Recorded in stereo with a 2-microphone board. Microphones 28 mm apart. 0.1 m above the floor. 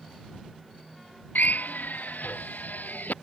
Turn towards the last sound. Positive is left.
turn(degrees=80)